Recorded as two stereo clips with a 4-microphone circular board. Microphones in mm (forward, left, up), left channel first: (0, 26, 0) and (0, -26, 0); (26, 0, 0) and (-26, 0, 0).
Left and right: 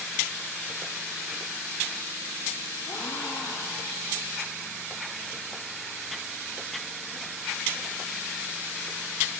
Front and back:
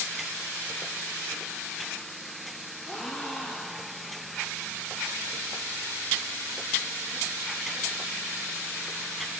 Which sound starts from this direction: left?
A gasp, at 2.9 s.